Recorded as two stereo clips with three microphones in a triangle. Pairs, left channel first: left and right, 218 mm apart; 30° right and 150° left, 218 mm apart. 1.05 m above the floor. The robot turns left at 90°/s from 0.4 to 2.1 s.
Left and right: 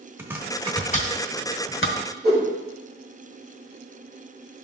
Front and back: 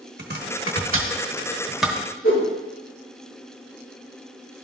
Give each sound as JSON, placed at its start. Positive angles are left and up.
{"t": 0.2, "sound": "chopping", "azimuth_deg": -170, "distance_m": 1.0}
{"t": 2.2, "sound": "a whoosh", "azimuth_deg": -50, "distance_m": 3.0}